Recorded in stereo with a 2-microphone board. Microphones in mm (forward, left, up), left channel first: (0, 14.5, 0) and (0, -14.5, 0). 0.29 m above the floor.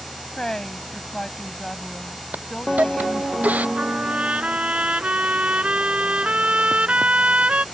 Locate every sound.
0.4 s a woman speaking: 20° left (ahead or behind)
2.3 s a hiss: 65° right (ahead or behind)
3.8 s a trumpet: 45° right (ahead or behind)